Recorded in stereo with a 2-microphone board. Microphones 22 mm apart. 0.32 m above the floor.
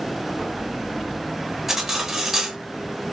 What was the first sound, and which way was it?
Cutlery clinking, 10° right (ahead or behind).